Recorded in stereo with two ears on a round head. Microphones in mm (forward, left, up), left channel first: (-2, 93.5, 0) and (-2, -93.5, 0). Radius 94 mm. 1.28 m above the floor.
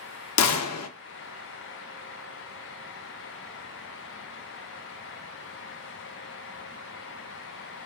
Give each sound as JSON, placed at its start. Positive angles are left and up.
{"t": 0.4, "sound": "a gunshot", "side_deg": 85, "distance_m": 0.5}